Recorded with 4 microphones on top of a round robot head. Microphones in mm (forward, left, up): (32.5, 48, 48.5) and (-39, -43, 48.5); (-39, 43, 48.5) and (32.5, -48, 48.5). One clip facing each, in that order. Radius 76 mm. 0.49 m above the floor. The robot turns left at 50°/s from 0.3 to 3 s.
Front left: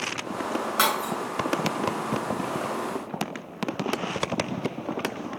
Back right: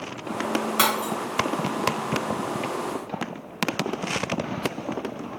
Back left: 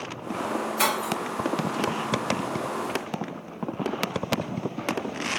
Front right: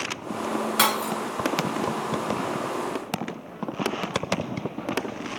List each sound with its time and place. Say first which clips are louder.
0.8 s breaking glass: front left 1 dB, front right 2 dB; 50° right, 2.5 m; by 1.1 s 65° right, 2.5 m